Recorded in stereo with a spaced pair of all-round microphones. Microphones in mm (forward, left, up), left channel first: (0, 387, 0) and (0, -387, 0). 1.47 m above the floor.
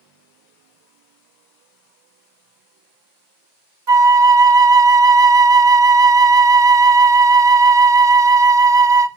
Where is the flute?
35° right (ahead or behind), 0.6 m.